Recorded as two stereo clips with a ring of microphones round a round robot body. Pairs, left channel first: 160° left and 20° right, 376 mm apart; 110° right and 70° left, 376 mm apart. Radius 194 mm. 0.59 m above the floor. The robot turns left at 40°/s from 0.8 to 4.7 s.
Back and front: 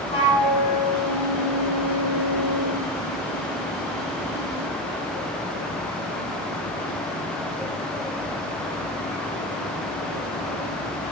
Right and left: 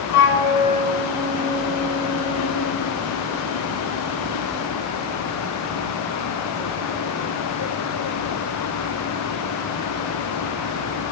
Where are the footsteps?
No footsteps in this recording.